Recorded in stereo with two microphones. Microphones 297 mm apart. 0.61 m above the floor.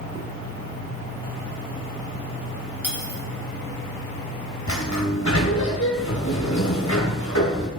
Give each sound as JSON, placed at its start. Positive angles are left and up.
{"t": 2.8, "sound": "cutlery clinking", "side_deg": -5, "distance_m": 2.5}
{"t": 4.7, "sound": "a sliding door", "side_deg": 65, "distance_m": 2.5}